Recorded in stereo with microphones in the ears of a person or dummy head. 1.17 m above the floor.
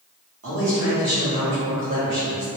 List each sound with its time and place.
0.4 s a man speaking: 65° right (ahead or behind), 1.5 m